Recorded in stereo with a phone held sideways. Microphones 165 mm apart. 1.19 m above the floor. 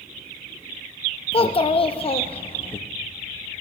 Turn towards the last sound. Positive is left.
turn(degrees=35)  # may be behind; listen again after turning